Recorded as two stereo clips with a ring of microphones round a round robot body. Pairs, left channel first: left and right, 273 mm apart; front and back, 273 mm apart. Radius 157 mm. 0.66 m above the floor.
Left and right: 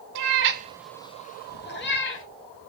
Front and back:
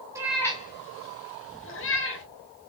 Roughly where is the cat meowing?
Right.